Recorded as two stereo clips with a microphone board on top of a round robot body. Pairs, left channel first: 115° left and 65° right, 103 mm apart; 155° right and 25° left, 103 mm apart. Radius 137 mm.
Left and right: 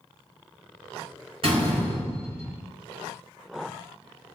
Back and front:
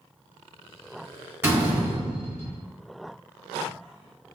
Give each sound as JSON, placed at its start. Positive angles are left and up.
{"t": 1.4, "sound": "a door slam", "azimuth_deg": -50, "distance_m": 1.9}